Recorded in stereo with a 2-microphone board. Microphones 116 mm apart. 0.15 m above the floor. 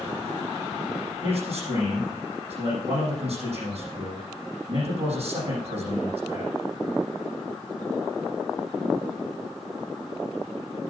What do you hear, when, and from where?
1.2 s a man speaking: 60° right (ahead or behind), 6.5 m